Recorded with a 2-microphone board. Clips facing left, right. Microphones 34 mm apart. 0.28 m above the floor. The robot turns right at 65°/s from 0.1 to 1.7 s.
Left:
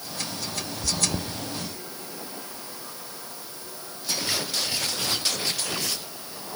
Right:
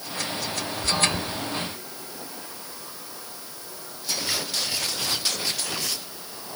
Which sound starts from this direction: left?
Chewing, at 0.8 s.